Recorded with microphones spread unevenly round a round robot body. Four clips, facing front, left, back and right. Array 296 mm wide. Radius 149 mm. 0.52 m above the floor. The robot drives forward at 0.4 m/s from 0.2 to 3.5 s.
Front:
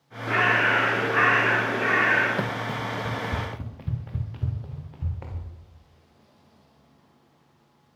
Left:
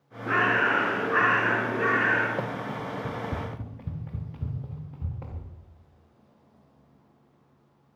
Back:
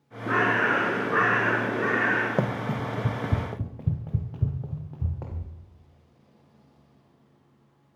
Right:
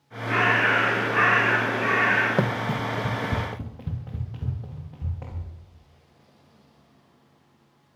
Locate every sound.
0.3 s a bird: 165° left, 4 m
2.4 s running footsteps: 110° right, 1.1 m; by 5.5 s straight behind, 4 m